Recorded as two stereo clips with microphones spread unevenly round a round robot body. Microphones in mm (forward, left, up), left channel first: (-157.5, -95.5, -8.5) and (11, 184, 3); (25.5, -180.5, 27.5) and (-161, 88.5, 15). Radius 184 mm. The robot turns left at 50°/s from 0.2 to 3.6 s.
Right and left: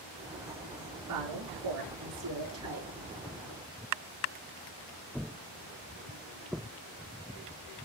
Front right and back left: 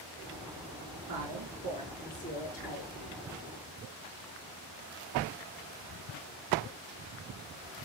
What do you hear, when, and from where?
1.1 s a woman speaking: 85° left, 6 m; by 2.9 s 5° right, 6 m